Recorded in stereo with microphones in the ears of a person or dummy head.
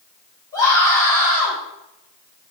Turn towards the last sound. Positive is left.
turn(degrees=20)  # may be behind; listen again after turning